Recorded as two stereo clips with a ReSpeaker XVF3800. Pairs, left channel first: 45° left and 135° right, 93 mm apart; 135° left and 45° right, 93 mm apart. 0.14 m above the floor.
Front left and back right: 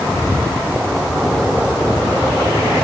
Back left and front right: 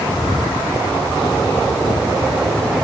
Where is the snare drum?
I don't hear a snare drum.